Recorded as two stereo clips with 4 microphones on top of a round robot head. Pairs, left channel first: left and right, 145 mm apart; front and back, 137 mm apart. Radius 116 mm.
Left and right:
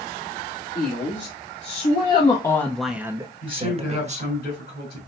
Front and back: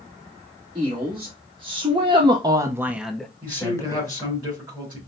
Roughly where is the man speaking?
Behind left.